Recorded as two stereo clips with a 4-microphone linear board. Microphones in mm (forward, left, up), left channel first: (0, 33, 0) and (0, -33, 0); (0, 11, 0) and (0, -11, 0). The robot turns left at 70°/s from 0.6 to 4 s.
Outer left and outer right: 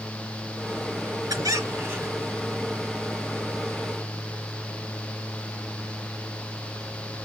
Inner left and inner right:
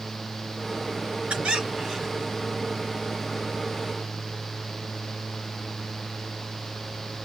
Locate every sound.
1.3 s a squeak: 110° right, 3.5 m; by 2.3 s straight behind, 3.5 m